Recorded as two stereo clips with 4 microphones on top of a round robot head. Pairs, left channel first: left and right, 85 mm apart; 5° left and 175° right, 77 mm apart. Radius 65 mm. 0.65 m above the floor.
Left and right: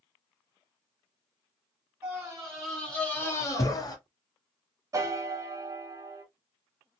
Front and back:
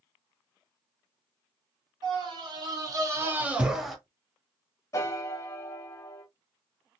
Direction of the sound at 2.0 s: 165° right.